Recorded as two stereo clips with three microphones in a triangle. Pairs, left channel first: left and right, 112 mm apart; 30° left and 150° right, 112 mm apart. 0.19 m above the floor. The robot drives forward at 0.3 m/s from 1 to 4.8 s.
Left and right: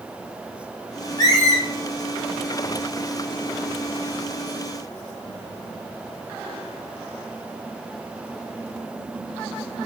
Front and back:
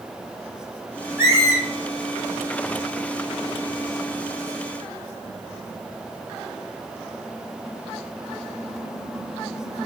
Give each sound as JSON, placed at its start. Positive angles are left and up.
{"t": 1.2, "sound": "a squeak", "azimuth_deg": 145, "distance_m": 2.0}